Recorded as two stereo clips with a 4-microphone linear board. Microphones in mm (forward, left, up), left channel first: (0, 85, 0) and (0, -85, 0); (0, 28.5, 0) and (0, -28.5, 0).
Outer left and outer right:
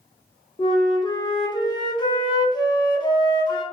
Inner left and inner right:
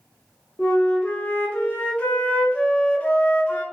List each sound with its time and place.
0.6 s a flute: 25° left (ahead or behind), 0.7 m